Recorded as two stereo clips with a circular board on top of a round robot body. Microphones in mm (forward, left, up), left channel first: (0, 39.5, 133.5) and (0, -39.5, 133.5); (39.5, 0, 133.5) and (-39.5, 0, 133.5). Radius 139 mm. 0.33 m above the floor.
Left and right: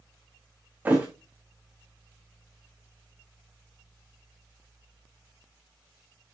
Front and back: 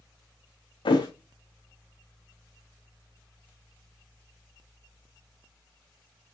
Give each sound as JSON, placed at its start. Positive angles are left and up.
{"t": 0.8, "sound": "a thud", "azimuth_deg": -20, "distance_m": 2.0}